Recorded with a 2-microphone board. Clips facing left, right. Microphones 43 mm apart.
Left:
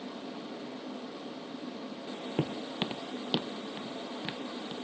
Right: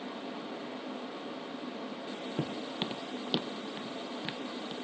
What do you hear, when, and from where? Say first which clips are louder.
2.4 s footsteps: left 3 dB; 45° left (ahead or behind); by 4.8 s centre (ahead or behind)